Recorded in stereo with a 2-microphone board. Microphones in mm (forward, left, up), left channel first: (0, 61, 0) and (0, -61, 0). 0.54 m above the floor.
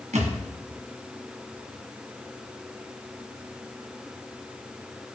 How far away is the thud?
About 2.0 m.